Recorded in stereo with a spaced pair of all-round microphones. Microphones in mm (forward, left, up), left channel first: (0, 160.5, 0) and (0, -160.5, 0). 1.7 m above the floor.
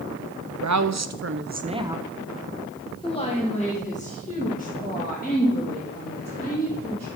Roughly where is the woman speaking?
Right.